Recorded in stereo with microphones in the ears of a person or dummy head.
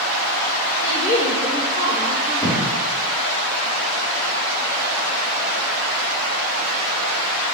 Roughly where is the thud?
Left.